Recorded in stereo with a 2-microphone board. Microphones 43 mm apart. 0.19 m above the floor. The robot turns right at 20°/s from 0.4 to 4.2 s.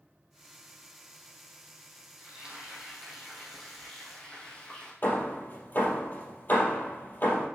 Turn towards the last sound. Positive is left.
turn(degrees=45)  # may be behind; listen again after turning